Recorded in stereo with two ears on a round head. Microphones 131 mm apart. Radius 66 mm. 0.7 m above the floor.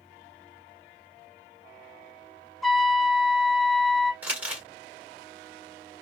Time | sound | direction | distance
2.6 | a trumpet | centre (ahead or behind) | 1.1 m
4.2 | crumpling | 10° right (ahead or behind) | 1.6 m